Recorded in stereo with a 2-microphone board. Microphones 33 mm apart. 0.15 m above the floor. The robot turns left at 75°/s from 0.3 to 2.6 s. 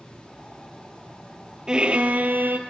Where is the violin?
25° right, 1.0 m; by 2.6 s 95° right, 1.0 m.